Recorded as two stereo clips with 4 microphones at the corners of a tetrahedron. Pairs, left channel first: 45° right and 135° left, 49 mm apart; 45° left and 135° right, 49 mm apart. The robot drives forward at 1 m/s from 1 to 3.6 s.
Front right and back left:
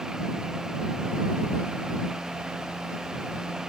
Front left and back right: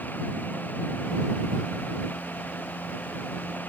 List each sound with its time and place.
Only background noise.